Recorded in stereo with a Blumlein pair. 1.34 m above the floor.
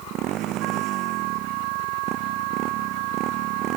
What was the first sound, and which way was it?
A motorcycle, 35° right.